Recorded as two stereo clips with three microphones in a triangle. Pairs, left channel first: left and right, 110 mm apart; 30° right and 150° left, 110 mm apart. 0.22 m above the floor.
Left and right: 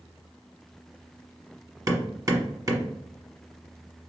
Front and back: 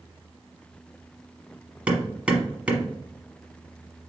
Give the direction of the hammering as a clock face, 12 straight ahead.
5 o'clock.